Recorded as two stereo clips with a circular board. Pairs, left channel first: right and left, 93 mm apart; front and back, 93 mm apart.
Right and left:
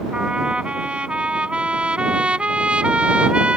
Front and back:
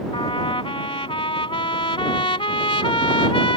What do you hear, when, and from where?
0.1 s a trumpet: 10° left